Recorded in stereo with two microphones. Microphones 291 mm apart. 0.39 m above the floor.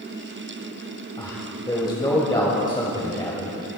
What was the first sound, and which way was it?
A man speaking, 15° left (ahead or behind).